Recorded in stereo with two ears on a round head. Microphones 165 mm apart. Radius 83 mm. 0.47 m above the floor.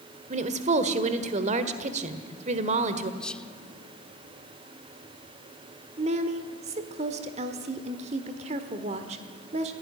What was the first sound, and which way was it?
A woman speaking, 40° right (ahead or behind).